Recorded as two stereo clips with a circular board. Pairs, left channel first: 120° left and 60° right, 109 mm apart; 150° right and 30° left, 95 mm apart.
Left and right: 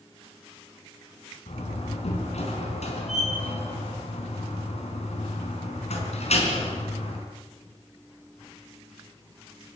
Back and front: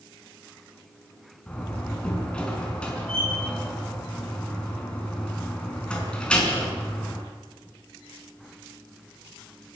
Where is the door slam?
130° left, 4.5 m.